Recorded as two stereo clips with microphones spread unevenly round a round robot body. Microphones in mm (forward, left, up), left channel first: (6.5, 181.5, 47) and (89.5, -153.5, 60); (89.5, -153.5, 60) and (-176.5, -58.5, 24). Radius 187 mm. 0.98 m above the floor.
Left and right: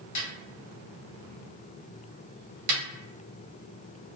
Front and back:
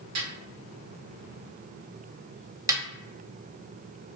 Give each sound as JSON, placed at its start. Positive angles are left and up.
{"t": 0.1, "sound": "a snare drum", "azimuth_deg": 120, "distance_m": 1.4}
{"t": 2.7, "sound": "a snare drum", "azimuth_deg": -120, "distance_m": 0.6}